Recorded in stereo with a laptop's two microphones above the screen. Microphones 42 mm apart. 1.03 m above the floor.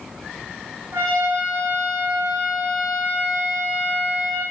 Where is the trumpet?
75° right (ahead or behind), 2.5 m.